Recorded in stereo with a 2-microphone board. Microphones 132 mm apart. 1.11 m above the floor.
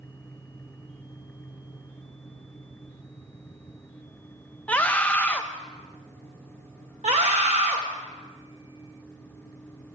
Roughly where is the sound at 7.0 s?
Right.